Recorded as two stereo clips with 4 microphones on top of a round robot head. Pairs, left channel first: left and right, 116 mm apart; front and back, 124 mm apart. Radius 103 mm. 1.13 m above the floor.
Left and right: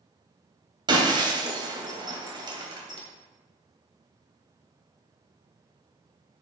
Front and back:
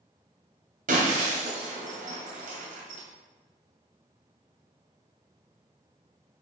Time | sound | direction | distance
0.9 | breaking glass | 140° right | 2.5 m